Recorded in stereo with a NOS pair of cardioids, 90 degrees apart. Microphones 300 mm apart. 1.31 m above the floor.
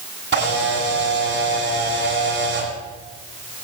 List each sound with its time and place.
0.3 s a camera shutter: 35° right, 9.5 m